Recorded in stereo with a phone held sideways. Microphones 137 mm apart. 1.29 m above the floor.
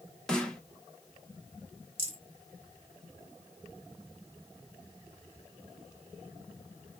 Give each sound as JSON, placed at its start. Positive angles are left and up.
{"t": 0.3, "sound": "a snare drum", "side_deg": 5, "distance_m": 0.7}
{"t": 2.0, "sound": "a rattle", "side_deg": -45, "distance_m": 1.2}